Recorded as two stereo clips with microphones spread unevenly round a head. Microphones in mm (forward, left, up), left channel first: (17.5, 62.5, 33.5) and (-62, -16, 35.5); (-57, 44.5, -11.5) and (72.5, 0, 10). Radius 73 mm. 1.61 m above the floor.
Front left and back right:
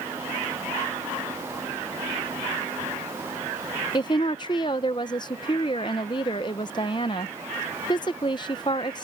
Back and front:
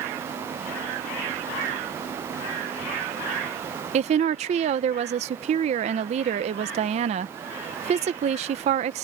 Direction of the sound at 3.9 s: 10° right.